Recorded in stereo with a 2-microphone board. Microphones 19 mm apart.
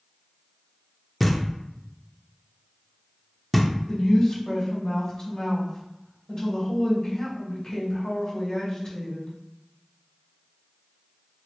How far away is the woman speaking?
About 1.9 m.